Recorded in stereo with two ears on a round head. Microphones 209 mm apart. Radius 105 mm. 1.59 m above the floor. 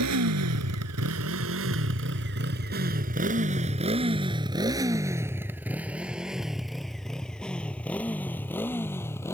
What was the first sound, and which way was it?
A motorcycle, 85° right.